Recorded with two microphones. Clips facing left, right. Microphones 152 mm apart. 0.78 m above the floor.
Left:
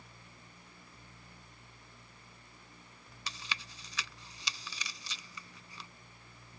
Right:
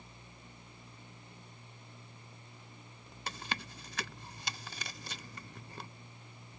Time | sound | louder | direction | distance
3.3 | chewing | right 4 dB | 55° right (ahead or behind) | ?